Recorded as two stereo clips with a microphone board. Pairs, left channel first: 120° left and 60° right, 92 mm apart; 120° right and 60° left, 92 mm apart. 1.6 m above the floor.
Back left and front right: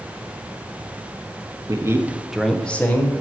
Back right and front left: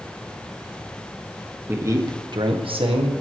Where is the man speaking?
10° right, 1.3 m; by 3.1 s 55° left, 1.8 m.